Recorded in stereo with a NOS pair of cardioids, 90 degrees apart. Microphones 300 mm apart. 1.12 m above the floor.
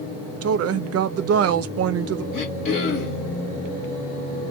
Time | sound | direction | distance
0.4 | a woman speaking | 55° right | 0.6 m
2.3 | throat clearing | 50° left | 1.5 m